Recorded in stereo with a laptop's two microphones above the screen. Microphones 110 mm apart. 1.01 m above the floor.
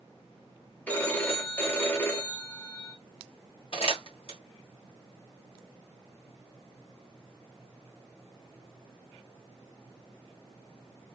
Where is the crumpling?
55° left (ahead or behind), 1.3 m.